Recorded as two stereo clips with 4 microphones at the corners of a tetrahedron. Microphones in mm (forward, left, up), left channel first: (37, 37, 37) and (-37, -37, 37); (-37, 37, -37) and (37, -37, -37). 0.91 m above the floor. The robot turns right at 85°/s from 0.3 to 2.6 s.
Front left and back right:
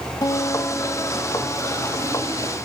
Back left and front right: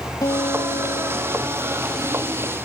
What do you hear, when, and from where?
0.2 s a guitar: 85° left, 1.2 m; by 2.4 s 100° right, 1.2 m